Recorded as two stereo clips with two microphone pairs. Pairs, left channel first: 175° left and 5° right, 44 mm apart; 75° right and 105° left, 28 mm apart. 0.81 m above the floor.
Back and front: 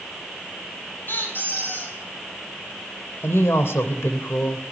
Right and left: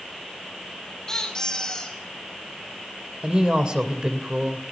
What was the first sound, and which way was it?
A squeak, 145° right.